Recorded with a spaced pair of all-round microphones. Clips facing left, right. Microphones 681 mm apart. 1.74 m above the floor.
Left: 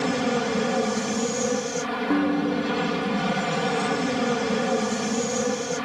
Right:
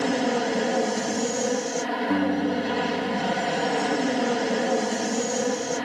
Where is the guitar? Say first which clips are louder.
Left 2 dB; 20° right (ahead or behind).